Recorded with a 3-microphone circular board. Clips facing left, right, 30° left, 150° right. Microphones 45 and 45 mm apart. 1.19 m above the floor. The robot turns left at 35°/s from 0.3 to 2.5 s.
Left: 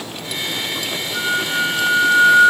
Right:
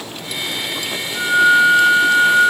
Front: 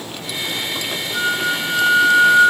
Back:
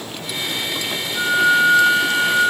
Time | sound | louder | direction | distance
1.1 | a flute | right 9 dB, back 5 dB | 35° left | 4 m